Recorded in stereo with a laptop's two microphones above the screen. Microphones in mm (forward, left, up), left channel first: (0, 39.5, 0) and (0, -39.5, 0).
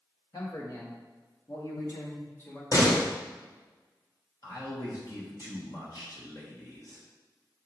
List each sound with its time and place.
0.3 s a man speaking: 55° left (ahead or behind), 1.5 m; by 2.6 s 25° left (ahead or behind), 1.1 m
2.7 s a door slam: 45° left (ahead or behind), 1.0 m
4.4 s a man speaking: 45° left (ahead or behind), 1.1 m